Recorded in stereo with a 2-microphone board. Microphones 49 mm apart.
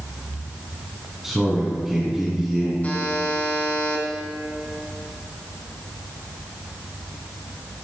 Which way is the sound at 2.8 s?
30° left (ahead or behind).